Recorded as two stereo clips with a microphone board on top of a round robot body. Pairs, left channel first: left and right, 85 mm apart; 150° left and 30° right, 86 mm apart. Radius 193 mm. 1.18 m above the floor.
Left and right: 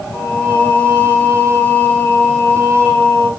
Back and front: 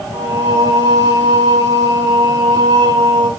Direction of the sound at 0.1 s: 15° left.